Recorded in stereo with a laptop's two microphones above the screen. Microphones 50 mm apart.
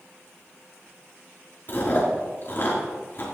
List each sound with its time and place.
1.7 s chewing: 45° left (ahead or behind), 4.5 m